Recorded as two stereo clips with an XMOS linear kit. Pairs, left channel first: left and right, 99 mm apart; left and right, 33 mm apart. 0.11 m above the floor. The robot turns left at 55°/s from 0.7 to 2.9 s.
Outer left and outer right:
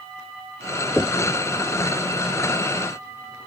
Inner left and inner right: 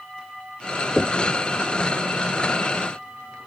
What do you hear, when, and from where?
1.0 s knocking: 20° left (ahead or behind); by 1.2 s 25° left (ahead or behind)